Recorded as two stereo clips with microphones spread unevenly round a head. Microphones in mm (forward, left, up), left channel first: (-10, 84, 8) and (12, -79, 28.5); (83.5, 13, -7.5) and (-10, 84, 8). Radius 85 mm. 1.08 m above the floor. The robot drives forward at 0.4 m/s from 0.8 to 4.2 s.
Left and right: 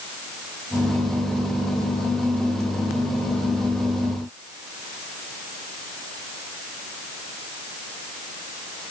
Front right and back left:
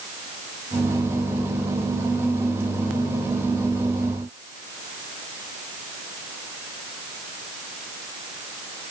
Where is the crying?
I don't hear crying.